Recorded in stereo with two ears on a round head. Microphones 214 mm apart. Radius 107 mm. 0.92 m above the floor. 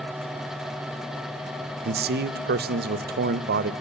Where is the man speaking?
40° right (ahead or behind), 0.6 m.